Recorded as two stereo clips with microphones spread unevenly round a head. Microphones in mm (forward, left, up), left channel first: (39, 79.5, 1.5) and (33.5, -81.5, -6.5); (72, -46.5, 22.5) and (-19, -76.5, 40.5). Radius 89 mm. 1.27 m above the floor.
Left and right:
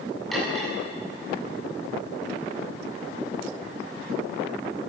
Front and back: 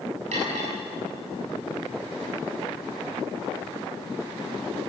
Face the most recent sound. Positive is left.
turn(degrees=175)